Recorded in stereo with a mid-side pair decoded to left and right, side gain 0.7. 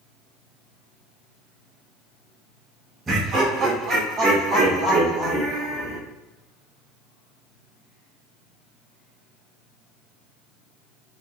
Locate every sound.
3.1 s laughter: 15° right, 1.3 m; by 6.0 s 30° right, 3 m